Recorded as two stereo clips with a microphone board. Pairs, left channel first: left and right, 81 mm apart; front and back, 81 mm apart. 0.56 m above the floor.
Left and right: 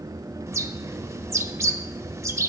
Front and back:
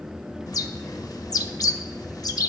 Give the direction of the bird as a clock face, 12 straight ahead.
1 o'clock.